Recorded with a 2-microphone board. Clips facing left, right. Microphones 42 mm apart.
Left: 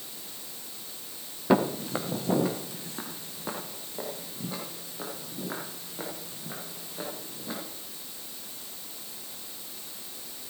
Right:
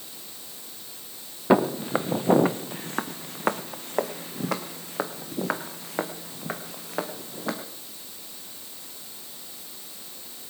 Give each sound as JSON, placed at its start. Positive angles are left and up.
{"t": 1.5, "sound": "footsteps", "side_deg": -15, "distance_m": 1.0}